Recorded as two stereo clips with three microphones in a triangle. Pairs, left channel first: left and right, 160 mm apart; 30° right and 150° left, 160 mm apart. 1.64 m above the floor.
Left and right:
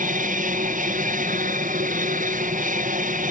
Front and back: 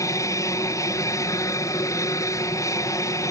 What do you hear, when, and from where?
0.0 s an aircraft: 95° right